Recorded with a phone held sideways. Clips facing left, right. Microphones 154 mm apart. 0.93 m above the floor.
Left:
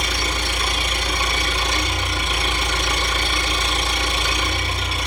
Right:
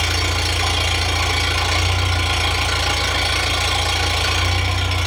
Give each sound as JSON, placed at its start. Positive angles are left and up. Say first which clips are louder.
{"t": 0.0, "sound": "an engine running", "louder": "right 2 dB", "side_deg": -80, "distance_m": 4.0}